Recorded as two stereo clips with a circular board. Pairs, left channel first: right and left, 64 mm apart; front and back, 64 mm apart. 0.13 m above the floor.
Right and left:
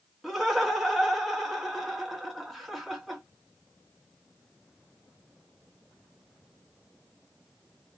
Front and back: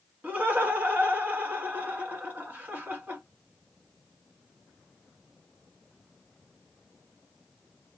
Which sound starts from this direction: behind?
Laughter, at 0.2 s.